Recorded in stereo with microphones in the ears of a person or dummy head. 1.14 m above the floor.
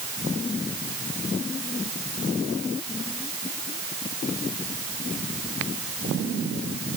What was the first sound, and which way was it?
Only background noise.